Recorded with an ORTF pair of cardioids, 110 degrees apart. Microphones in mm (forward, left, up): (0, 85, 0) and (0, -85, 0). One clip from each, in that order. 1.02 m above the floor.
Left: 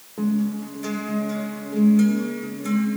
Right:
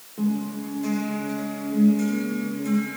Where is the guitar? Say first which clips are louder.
Left 3 dB; 35° left, 2.5 m.